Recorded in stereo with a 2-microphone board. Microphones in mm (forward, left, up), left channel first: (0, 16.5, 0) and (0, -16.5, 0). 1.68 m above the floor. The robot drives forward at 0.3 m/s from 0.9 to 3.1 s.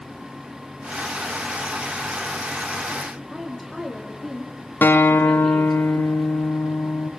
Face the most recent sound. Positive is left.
turn(degrees=70)  # may be behind; listen again after turning